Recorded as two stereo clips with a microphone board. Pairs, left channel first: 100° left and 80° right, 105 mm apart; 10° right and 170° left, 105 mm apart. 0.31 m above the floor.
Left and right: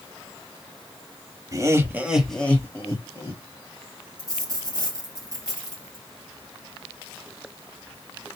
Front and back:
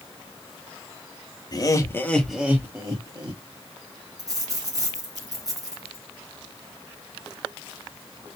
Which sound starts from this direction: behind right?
A dropped coin, at 4.2 s.